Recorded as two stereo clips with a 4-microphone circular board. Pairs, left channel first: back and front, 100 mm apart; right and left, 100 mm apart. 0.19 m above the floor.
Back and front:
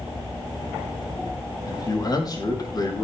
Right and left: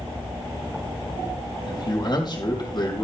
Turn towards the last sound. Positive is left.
turn(degrees=-130)